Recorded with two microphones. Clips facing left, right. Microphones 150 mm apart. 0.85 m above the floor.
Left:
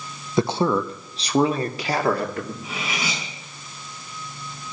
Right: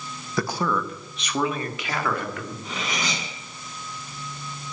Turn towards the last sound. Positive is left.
turn(degrees=5)  # may be behind; listen again after turning